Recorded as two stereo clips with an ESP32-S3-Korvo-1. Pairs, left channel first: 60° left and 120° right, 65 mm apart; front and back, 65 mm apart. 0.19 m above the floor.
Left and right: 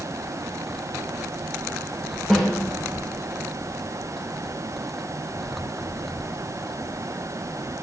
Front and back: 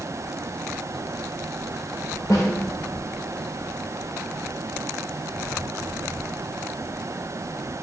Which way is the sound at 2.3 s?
25° right.